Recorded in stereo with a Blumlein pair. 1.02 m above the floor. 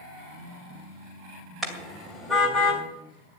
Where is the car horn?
5° right, 2.5 m; by 2.8 s 15° left, 3 m.